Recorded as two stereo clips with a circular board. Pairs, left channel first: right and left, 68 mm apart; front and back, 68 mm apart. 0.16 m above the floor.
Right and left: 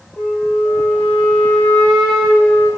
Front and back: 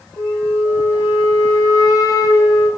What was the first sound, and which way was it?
A flute, 10° right.